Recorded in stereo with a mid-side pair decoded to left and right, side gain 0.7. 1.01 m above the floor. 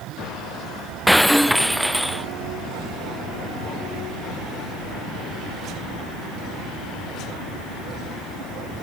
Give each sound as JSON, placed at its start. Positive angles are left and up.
{"t": 1.1, "sound": "breaking glass", "azimuth_deg": 0}